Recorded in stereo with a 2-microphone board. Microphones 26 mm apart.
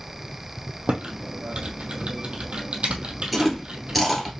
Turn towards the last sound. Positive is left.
turn(degrees=5)  # may be behind; listen again after turning